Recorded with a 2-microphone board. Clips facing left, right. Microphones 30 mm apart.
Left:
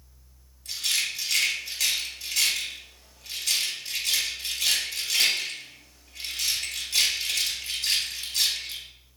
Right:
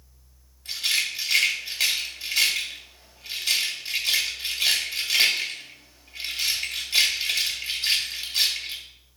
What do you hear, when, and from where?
0.7 s a rattle: 40° right (ahead or behind), 2.5 m